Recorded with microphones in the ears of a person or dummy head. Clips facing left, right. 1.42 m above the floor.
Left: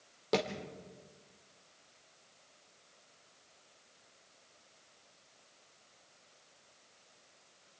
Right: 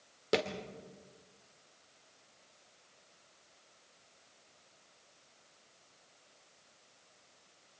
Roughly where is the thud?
Centre.